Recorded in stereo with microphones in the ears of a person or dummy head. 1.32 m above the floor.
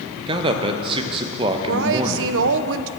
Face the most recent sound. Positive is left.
turn(degrees=-70)  # may be behind; listen again after turning